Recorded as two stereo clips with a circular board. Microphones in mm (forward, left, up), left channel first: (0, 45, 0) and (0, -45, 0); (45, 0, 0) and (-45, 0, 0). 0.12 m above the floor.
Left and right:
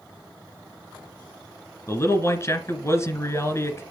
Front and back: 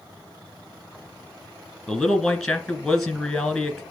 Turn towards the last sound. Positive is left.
turn(degrees=85)